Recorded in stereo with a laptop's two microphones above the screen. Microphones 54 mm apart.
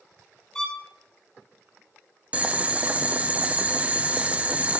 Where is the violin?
10° left (ahead or behind), 1.4 m.